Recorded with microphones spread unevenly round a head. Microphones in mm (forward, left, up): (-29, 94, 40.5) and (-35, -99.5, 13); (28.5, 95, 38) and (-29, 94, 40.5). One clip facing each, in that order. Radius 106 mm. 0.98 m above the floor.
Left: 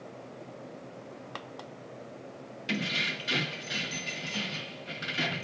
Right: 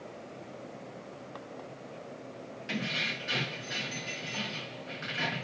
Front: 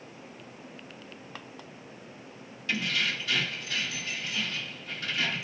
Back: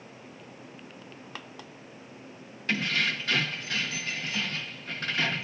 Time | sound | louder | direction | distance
2.7 | keys jangling | left 3 dB, back 2 dB | 140° left | 0.8 m